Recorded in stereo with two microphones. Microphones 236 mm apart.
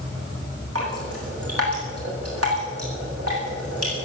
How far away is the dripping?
About 10 m.